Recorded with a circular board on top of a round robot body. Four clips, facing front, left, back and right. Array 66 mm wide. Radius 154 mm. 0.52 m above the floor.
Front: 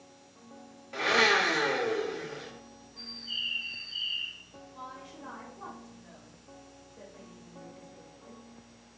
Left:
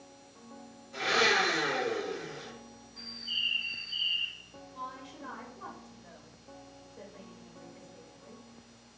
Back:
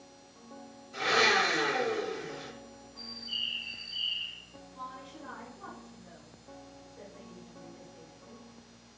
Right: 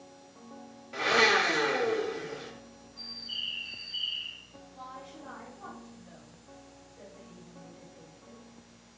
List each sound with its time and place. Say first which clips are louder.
0.9 s a blender: right 3 dB, front 1 dB; 40° right, 0.8 m
3.0 s a bird: left 4 dB, front 1 dB; 75° left, 0.7 m
4.7 s a woman speaking: left 2 dB, back 1 dB; 70° left, 1.5 m